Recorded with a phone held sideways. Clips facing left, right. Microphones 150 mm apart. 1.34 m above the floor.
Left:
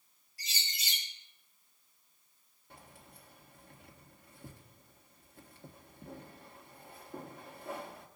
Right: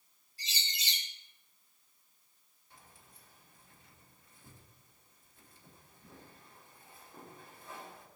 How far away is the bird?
About 6 m.